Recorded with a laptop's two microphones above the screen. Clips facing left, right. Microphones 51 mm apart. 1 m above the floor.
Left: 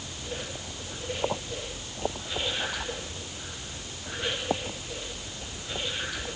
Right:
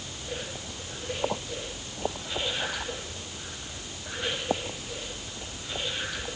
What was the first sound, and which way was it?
Only background noise.